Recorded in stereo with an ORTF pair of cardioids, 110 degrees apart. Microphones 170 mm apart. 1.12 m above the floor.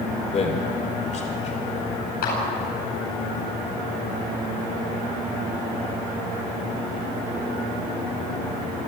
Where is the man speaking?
40° left, 3.5 m; by 2.0 s 45° left, 4.5 m.